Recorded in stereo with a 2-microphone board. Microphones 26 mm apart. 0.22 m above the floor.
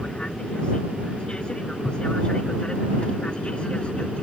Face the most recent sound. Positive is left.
turn(degrees=40)  # may be behind; listen again after turning